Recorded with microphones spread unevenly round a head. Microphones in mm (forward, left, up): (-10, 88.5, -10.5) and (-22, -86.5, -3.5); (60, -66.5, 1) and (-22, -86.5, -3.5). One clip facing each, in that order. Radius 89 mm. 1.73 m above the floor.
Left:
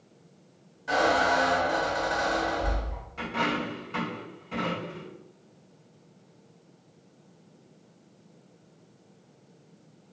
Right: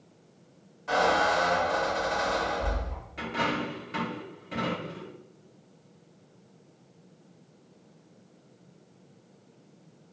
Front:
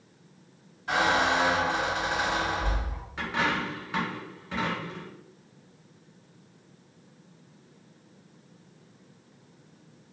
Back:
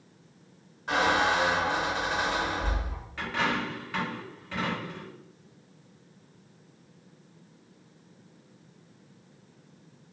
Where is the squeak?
170° left, 1.6 m.